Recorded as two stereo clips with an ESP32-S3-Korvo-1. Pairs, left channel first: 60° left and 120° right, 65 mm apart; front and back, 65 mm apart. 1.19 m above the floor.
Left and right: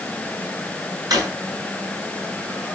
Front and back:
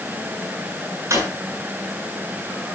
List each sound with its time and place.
1.1 s a drawer: 135° right, 7.5 m